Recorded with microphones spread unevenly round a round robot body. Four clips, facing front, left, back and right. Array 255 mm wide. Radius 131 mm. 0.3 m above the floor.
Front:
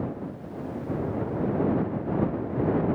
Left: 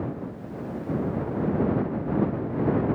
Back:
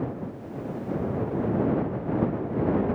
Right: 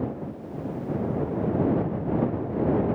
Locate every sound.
Only background noise.